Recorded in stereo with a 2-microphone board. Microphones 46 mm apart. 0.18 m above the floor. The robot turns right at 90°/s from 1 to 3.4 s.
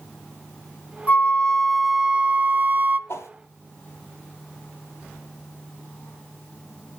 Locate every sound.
1.1 s a flute: 120° left, 0.8 m; by 3.0 s 70° right, 0.8 m
3.1 s a whoosh: 65° left (ahead or behind), 1.2 m; by 3.3 s 80° left, 1.2 m